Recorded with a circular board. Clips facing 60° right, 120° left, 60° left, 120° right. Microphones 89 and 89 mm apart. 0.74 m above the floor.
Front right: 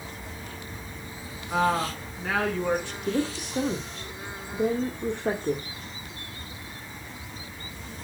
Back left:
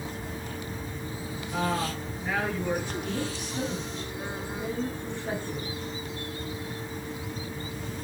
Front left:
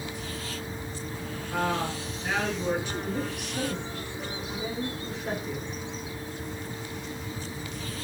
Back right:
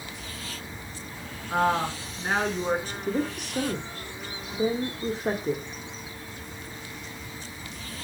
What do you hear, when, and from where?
1.5 s a woman speaking: 70° right, 7 m
3.1 s a woman speaking: 75° right, 2 m